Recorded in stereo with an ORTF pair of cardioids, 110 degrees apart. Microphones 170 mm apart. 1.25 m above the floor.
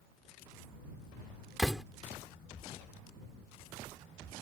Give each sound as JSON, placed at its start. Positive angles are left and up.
{"t": 1.6, "sound": "a door slam", "azimuth_deg": 0}